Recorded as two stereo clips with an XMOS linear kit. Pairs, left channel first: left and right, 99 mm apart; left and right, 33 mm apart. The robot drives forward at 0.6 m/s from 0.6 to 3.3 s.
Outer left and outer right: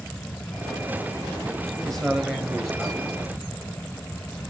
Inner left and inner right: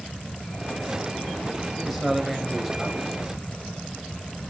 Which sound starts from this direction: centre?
A man speaking, at 1.9 s.